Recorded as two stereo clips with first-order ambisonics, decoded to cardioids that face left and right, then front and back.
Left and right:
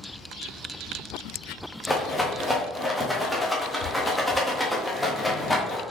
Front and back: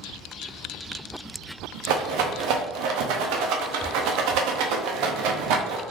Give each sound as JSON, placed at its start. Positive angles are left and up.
{"t": 1.9, "sound": "a rattle", "azimuth_deg": 175, "distance_m": 0.5}